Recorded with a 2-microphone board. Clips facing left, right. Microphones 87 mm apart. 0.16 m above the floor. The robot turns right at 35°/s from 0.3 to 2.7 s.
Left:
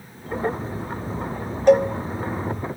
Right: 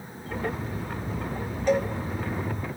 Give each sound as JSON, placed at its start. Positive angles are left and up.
{"t": 1.7, "sound": "a cowbell", "side_deg": 65, "distance_m": 0.7}